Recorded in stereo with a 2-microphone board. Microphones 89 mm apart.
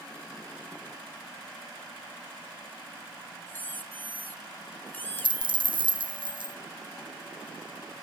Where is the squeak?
20° left (ahead or behind), 1.4 m.